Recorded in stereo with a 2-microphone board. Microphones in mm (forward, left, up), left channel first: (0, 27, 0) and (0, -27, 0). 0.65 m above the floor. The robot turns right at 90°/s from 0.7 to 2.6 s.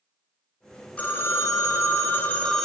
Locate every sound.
1.0 s a phone ringing: 25° left, 0.6 m; by 2.6 s 175° left, 0.6 m